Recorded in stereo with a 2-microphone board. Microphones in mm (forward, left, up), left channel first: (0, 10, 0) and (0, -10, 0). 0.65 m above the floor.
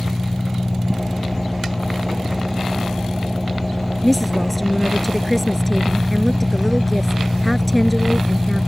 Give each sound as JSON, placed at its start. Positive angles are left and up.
{"t": 0.0, "sound": "an engine running", "side_deg": 5}
{"t": 4.0, "sound": "a woman speaking", "side_deg": 5}